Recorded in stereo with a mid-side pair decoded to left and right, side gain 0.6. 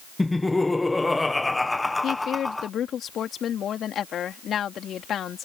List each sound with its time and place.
0.2 s laughter: 10° left
2.0 s a woman speaking: 45° left